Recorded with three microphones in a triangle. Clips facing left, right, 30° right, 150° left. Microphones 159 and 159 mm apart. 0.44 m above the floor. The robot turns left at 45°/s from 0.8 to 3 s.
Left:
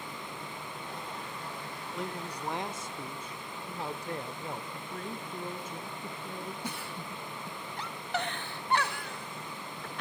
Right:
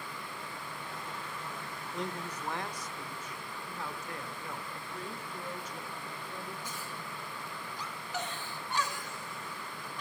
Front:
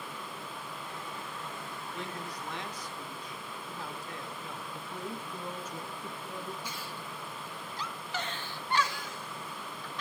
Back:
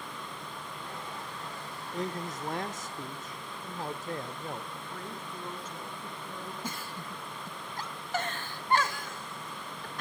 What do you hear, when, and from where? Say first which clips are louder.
1.9 s a man speaking: even, back 7 dB; straight behind, 1.1 m; by 4.6 s 135° left, 1.1 m
4.7 s a woman speaking: left 3 dB, front 2 dB; 50° left, 4.5 m
6.6 s a giggle: left 3 dB, back 2 dB; 110° left, 1.0 m